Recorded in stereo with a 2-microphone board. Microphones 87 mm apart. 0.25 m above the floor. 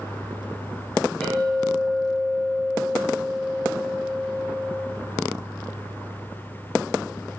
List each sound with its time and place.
1.2 s a clink: 10° left (ahead or behind), 3.5 m